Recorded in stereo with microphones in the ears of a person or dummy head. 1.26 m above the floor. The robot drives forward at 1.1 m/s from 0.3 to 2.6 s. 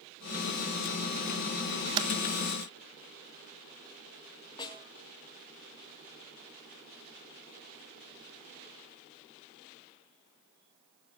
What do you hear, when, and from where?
2.0 s typing on a keyboard: 25° right (ahead or behind), 1.4 m; by 2.1 s 30° right (ahead or behind), 1.3 m
4.6 s a snare drum: 25° left (ahead or behind), 3.5 m